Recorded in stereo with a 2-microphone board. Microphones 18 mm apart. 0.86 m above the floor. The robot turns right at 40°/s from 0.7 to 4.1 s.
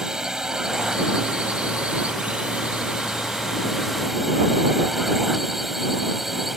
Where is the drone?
145° right; by 6.6 s 10° right.